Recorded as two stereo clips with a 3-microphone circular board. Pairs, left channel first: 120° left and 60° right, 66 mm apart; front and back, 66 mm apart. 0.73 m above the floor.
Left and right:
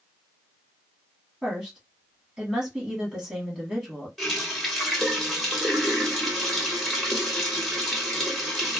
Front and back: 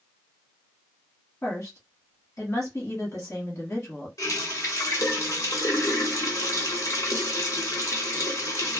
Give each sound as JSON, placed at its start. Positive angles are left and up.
{"t": 1.4, "sound": "a woman speaking", "azimuth_deg": 20, "distance_m": 1.4}
{"t": 4.2, "sound": "a running tap", "azimuth_deg": 30, "distance_m": 1.0}